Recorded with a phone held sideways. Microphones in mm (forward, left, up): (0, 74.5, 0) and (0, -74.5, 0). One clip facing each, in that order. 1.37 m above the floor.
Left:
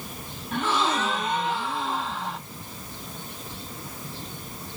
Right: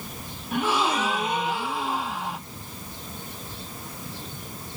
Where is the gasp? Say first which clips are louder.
Right 1 dB; 10° right (ahead or behind), 0.5 m.